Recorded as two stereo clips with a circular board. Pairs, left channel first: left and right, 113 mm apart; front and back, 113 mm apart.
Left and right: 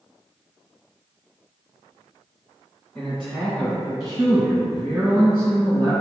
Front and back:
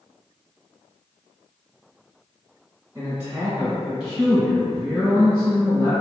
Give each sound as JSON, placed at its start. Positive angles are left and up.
{"t": 3.0, "sound": "a man speaking", "azimuth_deg": 160, "distance_m": 1.7}